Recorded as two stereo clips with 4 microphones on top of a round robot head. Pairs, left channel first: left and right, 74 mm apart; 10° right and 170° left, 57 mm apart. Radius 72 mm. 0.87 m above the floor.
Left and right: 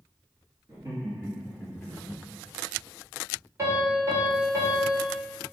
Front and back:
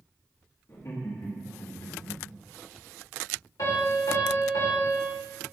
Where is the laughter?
45° right, 2 m; by 2.2 s 30° left, 1.2 m.